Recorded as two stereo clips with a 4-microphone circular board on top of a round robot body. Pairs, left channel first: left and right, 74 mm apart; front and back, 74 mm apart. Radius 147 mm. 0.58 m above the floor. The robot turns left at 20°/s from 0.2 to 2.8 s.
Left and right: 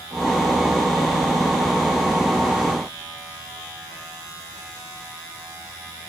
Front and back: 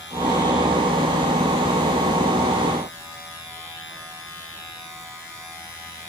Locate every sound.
Only background noise.